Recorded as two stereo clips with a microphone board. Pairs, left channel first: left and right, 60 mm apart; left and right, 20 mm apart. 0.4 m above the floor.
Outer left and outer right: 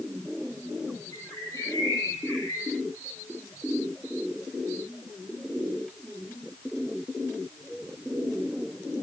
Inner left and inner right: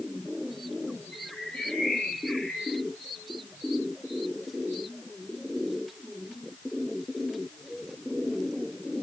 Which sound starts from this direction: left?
A bird, at 1.1 s.